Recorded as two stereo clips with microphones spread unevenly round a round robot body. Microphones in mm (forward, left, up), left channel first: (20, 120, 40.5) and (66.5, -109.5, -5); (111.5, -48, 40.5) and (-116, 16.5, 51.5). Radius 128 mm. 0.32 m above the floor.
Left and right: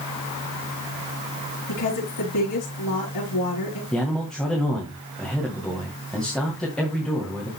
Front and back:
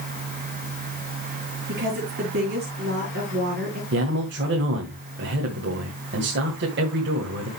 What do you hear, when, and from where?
1.7 s a woman speaking: 115° left, 5 m
3.9 s a man speaking: 165° right, 1.9 m